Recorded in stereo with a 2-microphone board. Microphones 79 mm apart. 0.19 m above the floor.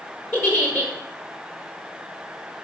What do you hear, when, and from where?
0.3 s a giggle: 30° left (ahead or behind), 1.1 m